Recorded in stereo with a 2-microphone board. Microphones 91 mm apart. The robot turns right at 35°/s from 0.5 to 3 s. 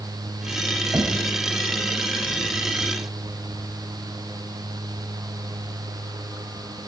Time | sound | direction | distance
0.9 | knocking | 20° right (ahead or behind) | 3 m